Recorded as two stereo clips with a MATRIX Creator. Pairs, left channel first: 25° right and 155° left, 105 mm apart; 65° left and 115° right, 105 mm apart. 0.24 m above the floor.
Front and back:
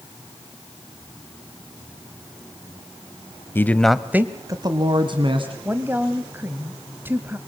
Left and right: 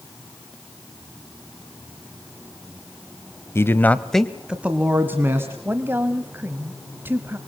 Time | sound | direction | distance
3.5 | a man speaking | 25° left | 1.2 m
5.7 | a woman speaking | 155° right | 1.3 m